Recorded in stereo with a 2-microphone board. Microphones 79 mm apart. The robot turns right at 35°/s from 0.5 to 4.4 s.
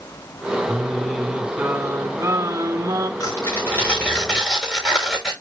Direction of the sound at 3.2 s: 135° left.